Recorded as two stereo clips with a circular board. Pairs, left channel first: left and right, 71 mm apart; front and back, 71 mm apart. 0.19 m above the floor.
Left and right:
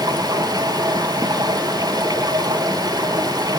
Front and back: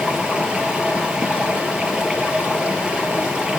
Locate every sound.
0.0 s running water: 105° right, 3.5 m